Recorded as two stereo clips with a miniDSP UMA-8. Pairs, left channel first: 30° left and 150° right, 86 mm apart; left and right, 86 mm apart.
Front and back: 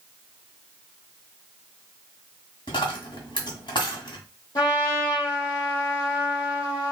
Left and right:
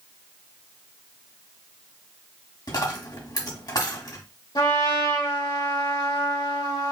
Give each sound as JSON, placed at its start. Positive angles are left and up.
{"t": 2.7, "sound": "a dropped coin", "azimuth_deg": 50, "distance_m": 1.4}
{"t": 4.5, "sound": "a trumpet", "azimuth_deg": 65, "distance_m": 1.9}